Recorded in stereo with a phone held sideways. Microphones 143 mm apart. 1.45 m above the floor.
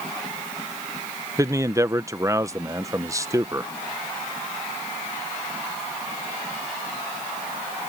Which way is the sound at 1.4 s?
20° right (ahead or behind).